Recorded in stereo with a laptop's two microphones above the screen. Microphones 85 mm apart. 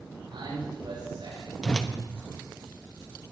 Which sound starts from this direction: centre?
A whoosh, at 1.6 s.